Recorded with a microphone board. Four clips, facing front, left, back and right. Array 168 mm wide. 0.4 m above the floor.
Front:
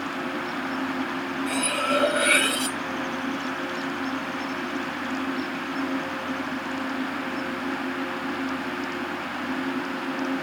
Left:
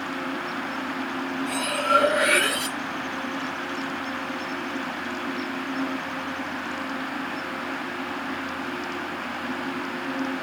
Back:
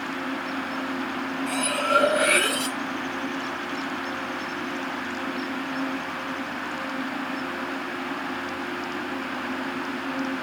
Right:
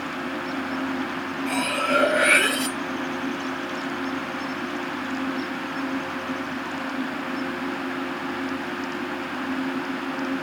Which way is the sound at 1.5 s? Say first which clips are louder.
Even, back 1 dB; 90° right.